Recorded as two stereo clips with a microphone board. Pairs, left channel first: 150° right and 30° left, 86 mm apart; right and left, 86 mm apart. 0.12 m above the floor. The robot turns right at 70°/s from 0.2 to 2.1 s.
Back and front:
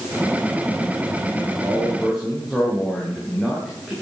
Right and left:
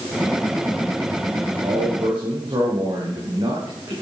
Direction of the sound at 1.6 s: 90° left.